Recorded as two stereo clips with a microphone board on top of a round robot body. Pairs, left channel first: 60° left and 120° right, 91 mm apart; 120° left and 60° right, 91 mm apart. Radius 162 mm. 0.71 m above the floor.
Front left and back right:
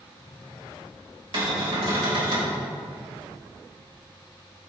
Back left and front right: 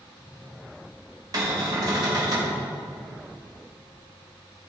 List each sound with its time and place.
1.3 s a cupboard door: 100° right, 3.5 m